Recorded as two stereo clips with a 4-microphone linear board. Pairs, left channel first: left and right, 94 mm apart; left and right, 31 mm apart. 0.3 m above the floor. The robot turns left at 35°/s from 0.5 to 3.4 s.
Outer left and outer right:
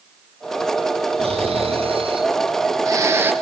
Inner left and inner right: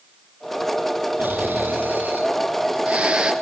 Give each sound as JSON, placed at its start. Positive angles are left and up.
{"t": 1.2, "sound": "snoring", "azimuth_deg": -85, "distance_m": 3.5}